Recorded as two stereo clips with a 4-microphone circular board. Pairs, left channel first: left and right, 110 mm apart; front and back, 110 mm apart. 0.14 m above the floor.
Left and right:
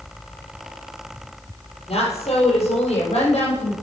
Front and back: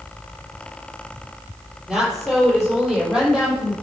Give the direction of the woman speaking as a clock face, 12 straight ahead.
9 o'clock.